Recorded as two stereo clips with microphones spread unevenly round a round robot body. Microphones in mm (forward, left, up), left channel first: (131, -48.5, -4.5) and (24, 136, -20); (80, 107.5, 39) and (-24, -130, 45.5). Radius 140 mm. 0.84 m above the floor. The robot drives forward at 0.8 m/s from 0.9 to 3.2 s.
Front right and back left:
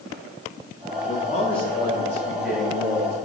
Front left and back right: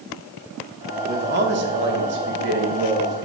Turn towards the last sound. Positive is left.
turn(degrees=-160)